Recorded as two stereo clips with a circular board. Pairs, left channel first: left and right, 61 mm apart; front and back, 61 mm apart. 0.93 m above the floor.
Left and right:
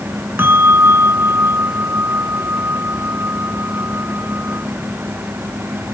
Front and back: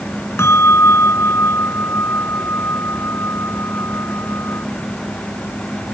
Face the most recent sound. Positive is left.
turn(degrees=-45)